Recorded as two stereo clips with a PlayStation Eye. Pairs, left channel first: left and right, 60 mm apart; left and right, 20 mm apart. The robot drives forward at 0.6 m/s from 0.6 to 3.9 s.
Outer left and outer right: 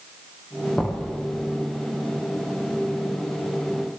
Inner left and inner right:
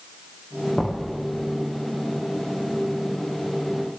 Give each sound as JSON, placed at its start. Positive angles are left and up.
{"t": 0.8, "sound": "knocking", "side_deg": 25, "distance_m": 9.0}